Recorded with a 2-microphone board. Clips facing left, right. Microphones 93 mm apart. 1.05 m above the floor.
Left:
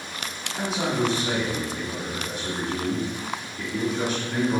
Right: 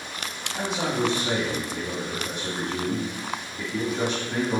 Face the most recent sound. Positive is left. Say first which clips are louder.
# left 1 dB
turn(degrees=-15)  # may be behind; listen again after turning